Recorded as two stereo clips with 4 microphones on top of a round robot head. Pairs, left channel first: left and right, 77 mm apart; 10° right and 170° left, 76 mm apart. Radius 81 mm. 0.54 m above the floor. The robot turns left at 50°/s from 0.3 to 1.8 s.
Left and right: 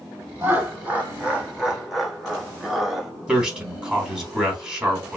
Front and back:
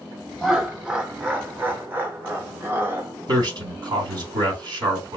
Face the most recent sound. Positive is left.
turn(degrees=-165)